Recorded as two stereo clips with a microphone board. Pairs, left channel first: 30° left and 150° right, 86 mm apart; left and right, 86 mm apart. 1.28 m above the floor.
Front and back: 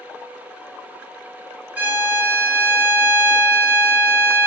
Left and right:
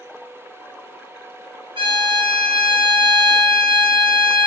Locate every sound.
1.8 s a violin: 80° right, 1.0 m